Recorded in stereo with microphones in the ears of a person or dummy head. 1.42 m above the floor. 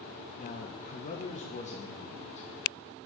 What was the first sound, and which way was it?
A man speaking, 35° left (ahead or behind).